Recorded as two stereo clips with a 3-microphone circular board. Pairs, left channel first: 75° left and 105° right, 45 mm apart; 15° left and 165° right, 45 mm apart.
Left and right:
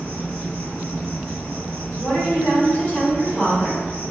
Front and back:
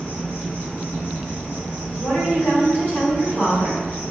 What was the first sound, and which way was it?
An insect, 65° left.